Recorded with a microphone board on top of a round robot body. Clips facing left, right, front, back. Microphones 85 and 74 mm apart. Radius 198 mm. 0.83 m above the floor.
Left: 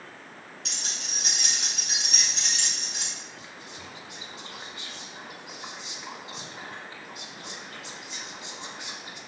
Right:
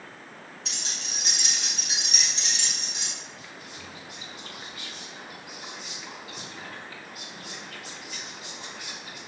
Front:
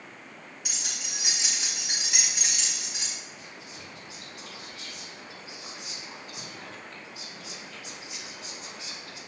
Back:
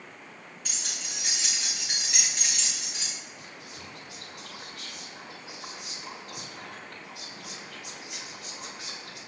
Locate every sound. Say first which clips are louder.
0.7 s keys jangling: even, even; 80° left, 4 m
3.4 s whispering: even, even; 150° left, 4.5 m